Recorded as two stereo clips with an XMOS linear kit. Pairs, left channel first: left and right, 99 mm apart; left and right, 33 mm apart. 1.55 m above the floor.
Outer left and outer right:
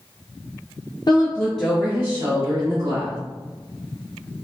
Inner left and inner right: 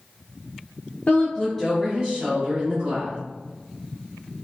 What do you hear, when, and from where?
1.1 s a woman speaking: 45° left (ahead or behind), 0.6 m; by 3.2 s 55° right (ahead or behind), 1.5 m